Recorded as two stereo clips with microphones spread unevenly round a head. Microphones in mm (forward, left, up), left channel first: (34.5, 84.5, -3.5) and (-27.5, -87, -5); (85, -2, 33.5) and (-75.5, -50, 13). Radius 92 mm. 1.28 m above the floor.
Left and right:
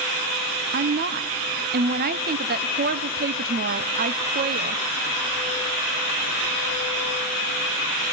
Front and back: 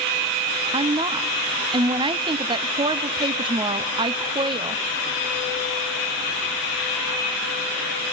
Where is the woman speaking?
120° right, 0.6 m.